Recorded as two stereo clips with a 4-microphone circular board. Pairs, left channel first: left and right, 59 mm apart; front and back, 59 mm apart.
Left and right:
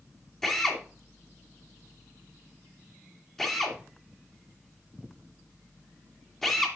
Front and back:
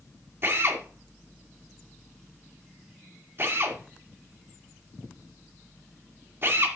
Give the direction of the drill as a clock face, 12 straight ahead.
6 o'clock.